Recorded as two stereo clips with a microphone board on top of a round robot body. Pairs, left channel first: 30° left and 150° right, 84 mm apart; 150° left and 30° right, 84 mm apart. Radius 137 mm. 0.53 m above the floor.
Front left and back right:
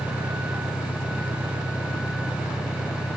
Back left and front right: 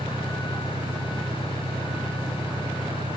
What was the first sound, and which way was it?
An engine running, 10° left.